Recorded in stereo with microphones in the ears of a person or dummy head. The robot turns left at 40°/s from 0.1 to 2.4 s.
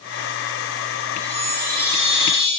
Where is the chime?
130° right, 1.1 m; by 2.5 s straight behind, 1.1 m.